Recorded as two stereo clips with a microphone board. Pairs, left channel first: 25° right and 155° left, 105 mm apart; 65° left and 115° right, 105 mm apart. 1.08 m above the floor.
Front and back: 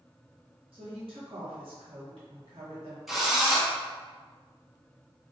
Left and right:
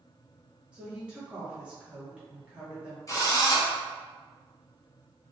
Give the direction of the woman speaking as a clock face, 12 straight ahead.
6 o'clock.